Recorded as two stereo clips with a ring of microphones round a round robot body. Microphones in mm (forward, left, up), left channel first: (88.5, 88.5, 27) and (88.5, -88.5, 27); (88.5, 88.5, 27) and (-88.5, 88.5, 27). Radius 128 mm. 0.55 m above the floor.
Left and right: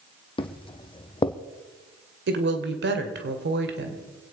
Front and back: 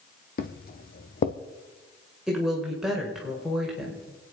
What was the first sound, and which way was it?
Footsteps, 30° left.